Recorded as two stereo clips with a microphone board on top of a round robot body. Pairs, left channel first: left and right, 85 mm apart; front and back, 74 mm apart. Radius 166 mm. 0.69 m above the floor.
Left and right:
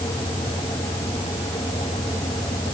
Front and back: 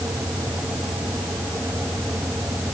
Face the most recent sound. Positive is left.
No sound to turn to.